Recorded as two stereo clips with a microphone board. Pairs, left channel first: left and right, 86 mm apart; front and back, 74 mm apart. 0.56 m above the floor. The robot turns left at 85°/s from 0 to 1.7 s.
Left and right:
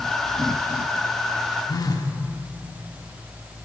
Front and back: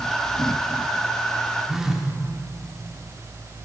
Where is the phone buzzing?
100° left, 0.9 m.